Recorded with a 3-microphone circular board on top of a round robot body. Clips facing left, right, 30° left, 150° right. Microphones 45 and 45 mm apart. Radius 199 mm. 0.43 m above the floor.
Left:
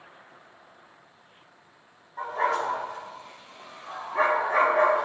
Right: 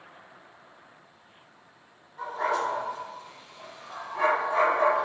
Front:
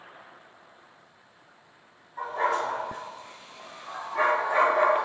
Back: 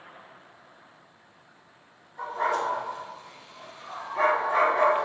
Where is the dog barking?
70° left, 3.5 m; by 5.1 s 115° left, 2.5 m.